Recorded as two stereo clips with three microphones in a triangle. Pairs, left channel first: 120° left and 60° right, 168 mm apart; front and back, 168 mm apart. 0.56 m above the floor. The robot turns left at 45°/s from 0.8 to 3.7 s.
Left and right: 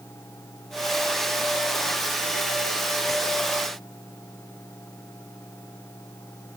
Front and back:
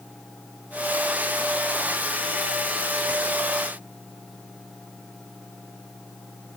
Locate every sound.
Only background noise.